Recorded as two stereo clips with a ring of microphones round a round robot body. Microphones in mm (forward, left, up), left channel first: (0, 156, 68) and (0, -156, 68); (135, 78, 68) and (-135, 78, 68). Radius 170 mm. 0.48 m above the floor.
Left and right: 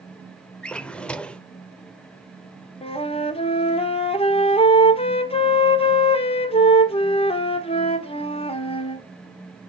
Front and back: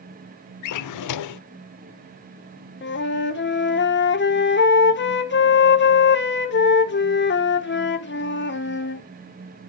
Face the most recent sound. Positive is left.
turn(degrees=25)